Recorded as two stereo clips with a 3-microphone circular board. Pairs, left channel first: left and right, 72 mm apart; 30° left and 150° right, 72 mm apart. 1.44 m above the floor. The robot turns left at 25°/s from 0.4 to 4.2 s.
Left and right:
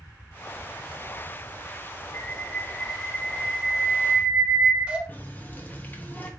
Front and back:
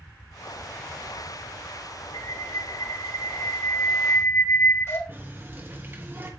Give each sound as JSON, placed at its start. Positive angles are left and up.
{"t": 2.1, "sound": "a bird", "azimuth_deg": 40, "distance_m": 1.5}
{"t": 5.1, "sound": "a running tap", "azimuth_deg": 150, "distance_m": 1.4}